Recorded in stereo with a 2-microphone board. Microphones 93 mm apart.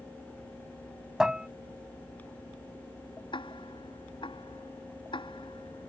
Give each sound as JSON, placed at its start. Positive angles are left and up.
{"t": 1.2, "sound": "dishes clattering", "side_deg": -10}
{"t": 3.3, "sound": "ticking", "side_deg": 60}